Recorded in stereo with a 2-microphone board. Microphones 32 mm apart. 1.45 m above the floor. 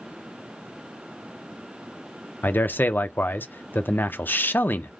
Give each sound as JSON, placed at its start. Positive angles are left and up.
{"t": 2.4, "sound": "a man speaking", "side_deg": 75, "distance_m": 0.6}